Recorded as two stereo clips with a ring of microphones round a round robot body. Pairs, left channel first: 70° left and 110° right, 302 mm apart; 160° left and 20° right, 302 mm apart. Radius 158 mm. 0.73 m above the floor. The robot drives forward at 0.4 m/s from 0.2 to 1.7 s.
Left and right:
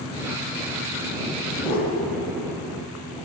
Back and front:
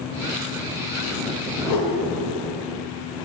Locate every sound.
1.6 s a whoosh: 125° left, 1.3 m; by 1.9 s 130° left, 1.3 m